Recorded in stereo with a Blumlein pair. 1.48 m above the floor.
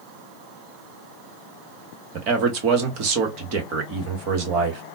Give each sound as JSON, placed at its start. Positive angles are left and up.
{"t": 2.1, "sound": "a man speaking", "azimuth_deg": -40, "distance_m": 1.3}